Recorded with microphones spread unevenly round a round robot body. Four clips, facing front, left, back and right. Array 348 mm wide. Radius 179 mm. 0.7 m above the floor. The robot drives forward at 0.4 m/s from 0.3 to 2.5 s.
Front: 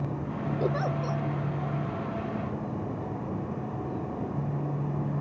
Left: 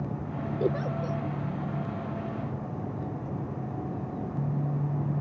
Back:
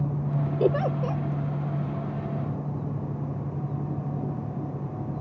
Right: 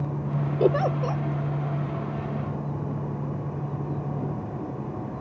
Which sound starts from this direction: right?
A giggle, at 0.6 s.